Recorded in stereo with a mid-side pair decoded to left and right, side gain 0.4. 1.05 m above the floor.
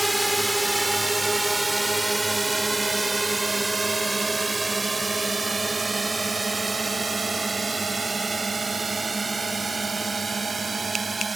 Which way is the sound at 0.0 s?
10° right.